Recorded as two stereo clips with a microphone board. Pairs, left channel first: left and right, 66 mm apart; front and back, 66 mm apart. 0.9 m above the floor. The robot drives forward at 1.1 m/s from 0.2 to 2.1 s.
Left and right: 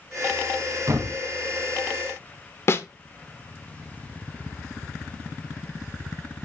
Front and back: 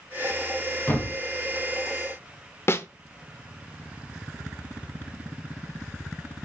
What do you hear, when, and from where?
0.9 s a thud: 50° right, 3 m; by 1.2 s 55° right, 2.5 m
2.7 s a snare drum: 45° left, 0.8 m